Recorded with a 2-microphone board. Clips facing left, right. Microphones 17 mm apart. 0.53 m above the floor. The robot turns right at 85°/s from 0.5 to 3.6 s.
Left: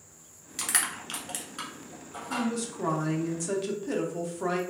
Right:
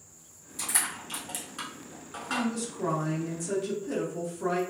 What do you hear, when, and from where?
0.6 s crushing: 70° left (ahead or behind), 1.0 m; by 2.5 s 60° right (ahead or behind), 1.0 m
2.3 s a woman speaking: 10° right (ahead or behind), 0.7 m; by 4.6 s 30° left (ahead or behind), 0.7 m